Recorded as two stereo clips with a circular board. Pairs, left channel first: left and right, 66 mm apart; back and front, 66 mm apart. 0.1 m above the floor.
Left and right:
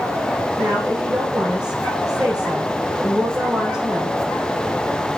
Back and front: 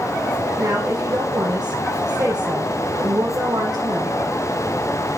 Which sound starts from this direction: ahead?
A woman speaking, at 0.6 s.